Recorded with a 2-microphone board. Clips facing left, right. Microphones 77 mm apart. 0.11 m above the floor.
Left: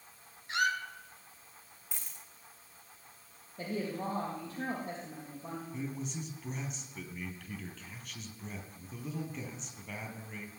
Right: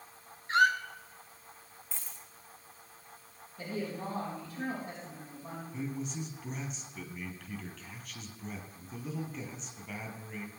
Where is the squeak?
40° right (ahead or behind), 1.1 m.